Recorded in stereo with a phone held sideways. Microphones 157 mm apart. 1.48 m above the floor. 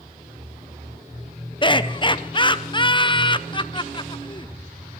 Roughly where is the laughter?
Left.